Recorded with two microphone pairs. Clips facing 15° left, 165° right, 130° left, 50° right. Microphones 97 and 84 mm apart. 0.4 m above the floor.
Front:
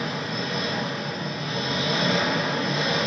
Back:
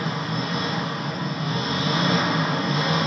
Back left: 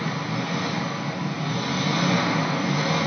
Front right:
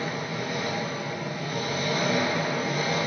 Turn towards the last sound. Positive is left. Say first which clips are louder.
# back 2 dB, back left 3 dB
turn(degrees=145)